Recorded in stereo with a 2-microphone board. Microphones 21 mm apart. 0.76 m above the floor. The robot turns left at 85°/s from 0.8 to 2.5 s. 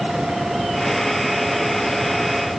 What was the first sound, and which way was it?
Only background noise.